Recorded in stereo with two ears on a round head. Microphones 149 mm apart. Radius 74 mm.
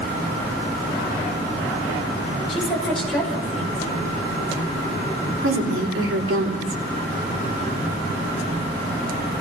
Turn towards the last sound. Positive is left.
turn(degrees=-80)